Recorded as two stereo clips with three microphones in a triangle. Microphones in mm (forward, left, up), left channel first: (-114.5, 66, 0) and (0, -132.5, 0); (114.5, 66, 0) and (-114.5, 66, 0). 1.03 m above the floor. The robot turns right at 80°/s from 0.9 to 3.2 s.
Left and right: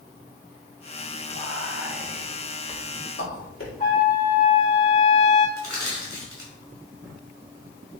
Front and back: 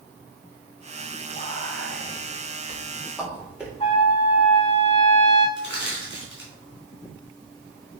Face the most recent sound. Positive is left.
turn(degrees=140)